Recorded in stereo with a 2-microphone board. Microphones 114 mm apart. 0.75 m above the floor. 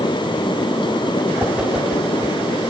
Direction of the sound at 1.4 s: 5° right (ahead or behind).